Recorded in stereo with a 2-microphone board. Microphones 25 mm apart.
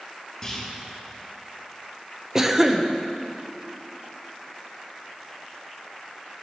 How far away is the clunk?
About 5.5 m.